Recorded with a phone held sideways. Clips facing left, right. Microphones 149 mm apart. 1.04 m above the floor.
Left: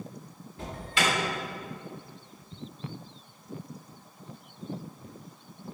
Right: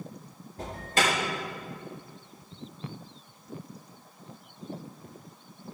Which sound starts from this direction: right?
An alarm, at 0.6 s.